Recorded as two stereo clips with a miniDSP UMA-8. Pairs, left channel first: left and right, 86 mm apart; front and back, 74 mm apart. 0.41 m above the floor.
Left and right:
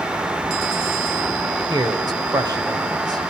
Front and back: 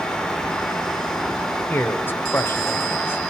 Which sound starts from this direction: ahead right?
A man speaking, at 1.7 s.